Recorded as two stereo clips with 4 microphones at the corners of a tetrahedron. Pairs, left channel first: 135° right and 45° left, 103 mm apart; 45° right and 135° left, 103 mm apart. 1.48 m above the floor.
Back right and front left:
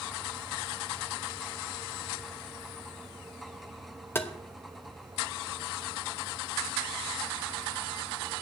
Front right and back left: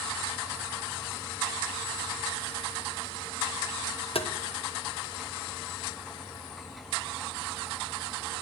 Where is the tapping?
65° right, 1.1 m.